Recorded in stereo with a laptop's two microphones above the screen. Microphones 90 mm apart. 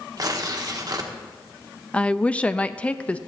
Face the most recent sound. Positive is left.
turn(degrees=15)  # may be behind; listen again after turning